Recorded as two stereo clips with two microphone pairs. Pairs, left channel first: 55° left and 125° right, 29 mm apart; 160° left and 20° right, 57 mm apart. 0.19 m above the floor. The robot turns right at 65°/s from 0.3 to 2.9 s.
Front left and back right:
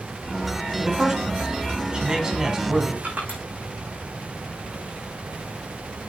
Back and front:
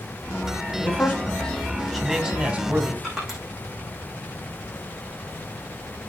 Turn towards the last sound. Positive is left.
turn(degrees=-105)